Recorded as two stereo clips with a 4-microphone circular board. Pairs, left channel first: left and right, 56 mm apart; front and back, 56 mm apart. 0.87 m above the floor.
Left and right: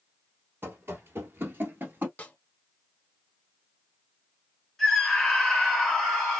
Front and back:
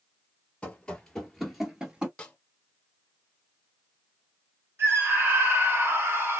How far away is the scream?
About 1.3 m.